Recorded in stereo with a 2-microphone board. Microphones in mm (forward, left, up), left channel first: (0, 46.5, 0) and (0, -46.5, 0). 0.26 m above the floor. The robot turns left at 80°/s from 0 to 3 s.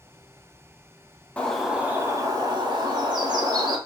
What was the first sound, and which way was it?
A bird, 20° left.